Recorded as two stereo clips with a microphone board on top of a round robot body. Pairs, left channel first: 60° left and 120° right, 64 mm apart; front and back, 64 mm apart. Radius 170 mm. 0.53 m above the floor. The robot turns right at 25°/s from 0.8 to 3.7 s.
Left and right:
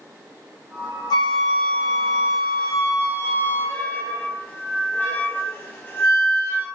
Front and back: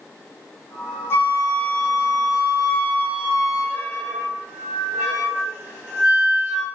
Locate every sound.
1.1 s a flute: 55° left, 1.5 m; by 6.7 s 120° left, 1.5 m